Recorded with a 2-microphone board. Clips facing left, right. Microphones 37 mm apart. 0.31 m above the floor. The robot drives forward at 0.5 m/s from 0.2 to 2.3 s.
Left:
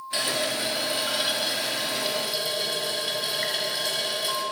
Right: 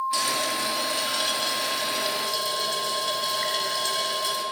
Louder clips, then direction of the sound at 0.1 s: Right 1 dB; 25° left (ahead or behind).